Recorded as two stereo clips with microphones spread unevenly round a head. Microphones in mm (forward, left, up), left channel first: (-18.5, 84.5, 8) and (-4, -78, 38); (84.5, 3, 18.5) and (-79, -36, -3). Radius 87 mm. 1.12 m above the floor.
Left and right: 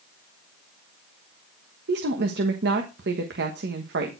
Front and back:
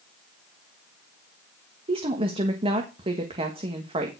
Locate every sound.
1.9 s a woman speaking: 110° right, 1.4 m